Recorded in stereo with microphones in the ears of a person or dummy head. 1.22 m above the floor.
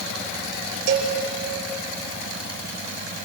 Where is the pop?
I don't hear a pop.